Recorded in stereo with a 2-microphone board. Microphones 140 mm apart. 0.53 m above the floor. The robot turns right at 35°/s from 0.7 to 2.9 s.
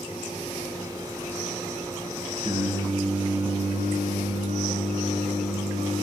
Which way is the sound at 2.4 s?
25° right (ahead or behind).